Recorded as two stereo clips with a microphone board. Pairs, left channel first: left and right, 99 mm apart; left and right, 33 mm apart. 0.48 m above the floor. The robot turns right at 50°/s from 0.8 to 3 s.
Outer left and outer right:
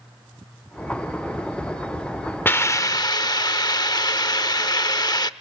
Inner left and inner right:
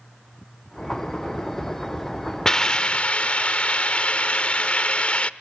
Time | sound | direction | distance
2.5 | a hiss | 20° left (ahead or behind) | 0.6 m